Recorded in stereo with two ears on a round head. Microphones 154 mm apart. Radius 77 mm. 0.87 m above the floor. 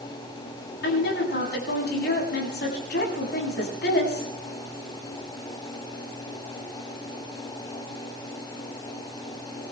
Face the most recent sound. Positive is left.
turn(degrees=60)  # may be behind; listen again after turning